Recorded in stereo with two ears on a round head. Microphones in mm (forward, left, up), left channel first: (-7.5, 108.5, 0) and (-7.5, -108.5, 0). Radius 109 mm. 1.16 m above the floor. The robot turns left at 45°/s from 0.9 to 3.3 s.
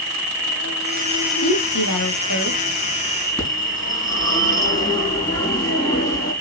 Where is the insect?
125° left, 4.5 m; by 6.4 s 20° left, 4.5 m.